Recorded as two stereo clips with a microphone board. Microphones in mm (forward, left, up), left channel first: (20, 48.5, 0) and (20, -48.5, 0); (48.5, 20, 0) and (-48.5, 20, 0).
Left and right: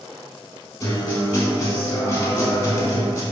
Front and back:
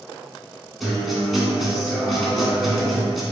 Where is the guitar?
90° left, 0.6 m.